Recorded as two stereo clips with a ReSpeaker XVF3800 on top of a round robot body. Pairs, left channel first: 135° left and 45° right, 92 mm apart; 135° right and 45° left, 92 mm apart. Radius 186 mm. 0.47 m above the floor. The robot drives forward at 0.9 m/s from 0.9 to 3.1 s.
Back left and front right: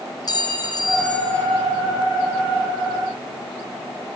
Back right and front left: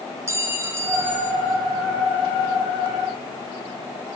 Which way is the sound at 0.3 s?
100° left.